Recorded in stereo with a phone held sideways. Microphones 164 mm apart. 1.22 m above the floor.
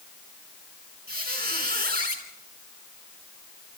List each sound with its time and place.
1.1 s a squeak: 65° right (ahead or behind), 4.5 m